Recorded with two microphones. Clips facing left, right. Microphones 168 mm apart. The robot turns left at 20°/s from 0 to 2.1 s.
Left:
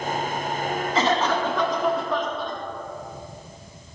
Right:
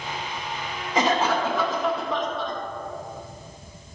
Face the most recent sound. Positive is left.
turn(degrees=0)  # may be behind; listen again after turning